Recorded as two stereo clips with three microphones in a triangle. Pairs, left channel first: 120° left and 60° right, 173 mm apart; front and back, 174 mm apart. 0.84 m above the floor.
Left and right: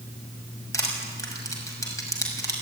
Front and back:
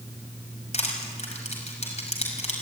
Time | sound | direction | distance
0.7 | crushing | 50° left | 6 m